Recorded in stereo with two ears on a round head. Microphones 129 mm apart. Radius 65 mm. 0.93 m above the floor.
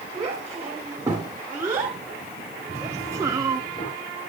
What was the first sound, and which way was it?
A child speaking, 20° right (ahead or behind).